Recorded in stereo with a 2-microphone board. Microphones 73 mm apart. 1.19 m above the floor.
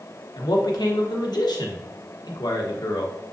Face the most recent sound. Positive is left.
turn(degrees=70)  # may be behind; listen again after turning